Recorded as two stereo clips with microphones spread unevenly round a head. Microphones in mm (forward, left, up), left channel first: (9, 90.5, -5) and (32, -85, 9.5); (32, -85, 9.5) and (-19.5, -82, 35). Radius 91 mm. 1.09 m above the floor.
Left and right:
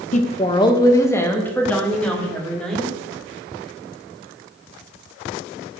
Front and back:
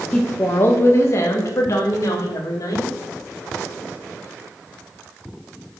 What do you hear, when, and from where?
0.1 s a woman speaking: 55° left, 0.8 m; by 2.9 s 10° left, 3 m